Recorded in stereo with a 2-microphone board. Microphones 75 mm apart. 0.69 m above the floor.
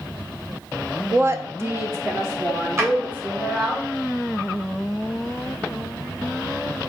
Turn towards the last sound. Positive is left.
turn(degrees=-35)  # may be behind; listen again after turning